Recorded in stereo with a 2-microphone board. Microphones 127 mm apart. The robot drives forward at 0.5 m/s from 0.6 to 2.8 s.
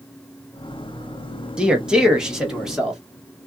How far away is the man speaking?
About 0.7 m.